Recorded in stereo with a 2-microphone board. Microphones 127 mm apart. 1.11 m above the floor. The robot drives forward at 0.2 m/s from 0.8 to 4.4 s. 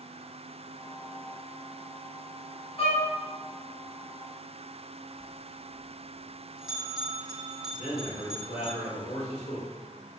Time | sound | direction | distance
2.8 | a violin | 50° left (ahead or behind) | 1.8 m
5.2 | a bell | 5° right (ahead or behind) | 1.3 m
7.7 | a man speaking | 75° left (ahead or behind) | 1.4 m